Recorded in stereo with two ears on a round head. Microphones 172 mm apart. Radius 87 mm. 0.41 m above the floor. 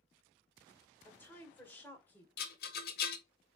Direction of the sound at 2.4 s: 55° left (ahead or behind).